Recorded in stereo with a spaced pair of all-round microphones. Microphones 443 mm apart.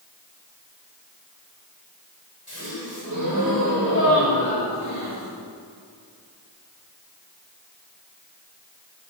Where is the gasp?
40° right (ahead or behind), 6.5 m.